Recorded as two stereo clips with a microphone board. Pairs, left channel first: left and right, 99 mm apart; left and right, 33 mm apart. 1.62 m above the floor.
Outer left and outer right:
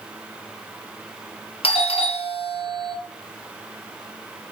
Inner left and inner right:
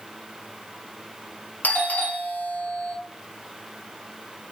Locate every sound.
1.6 s a doorbell: 75° left (ahead or behind), 0.7 m